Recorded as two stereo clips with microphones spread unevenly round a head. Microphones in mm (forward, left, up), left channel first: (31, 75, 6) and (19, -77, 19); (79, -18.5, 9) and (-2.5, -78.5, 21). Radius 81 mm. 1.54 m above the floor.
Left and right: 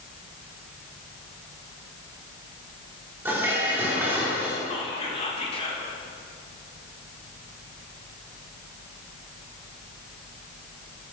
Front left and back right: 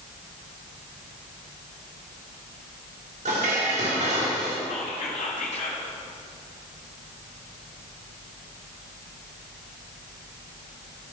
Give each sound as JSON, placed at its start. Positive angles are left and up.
{"t": 3.2, "sound": "dishes clattering", "azimuth_deg": -170, "distance_m": 2.5}
{"t": 4.7, "sound": "whispering", "azimuth_deg": 35, "distance_m": 2.5}